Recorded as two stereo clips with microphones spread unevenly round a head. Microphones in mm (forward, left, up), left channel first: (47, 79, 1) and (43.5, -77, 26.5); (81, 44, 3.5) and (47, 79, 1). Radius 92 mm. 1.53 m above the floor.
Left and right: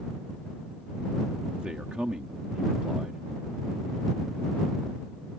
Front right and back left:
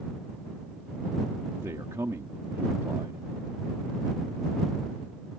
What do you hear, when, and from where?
1.6 s a man speaking: 175° right